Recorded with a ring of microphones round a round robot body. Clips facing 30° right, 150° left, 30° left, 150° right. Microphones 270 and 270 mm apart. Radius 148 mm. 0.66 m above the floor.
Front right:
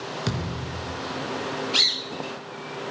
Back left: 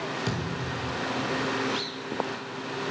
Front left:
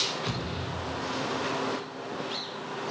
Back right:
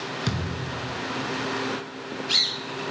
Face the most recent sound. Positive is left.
turn(degrees=-110)